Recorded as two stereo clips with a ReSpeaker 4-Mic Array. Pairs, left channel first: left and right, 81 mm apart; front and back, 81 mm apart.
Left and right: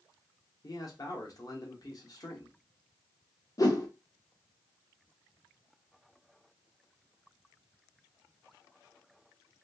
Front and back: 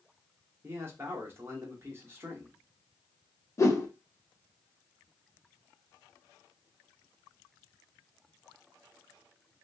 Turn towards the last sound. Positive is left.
turn(degrees=50)